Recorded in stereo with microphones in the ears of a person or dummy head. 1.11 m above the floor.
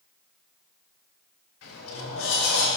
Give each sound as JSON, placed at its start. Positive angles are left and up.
{"t": 1.6, "sound": "a sliding door", "side_deg": 80, "distance_m": 5.0}